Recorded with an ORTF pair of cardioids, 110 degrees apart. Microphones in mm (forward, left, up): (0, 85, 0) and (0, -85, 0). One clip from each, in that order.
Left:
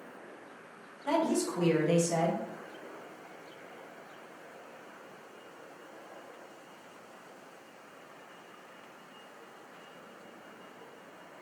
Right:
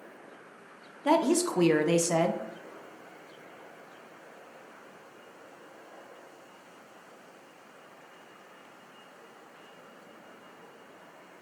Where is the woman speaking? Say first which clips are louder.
Right 5 dB; 45° right, 0.6 m.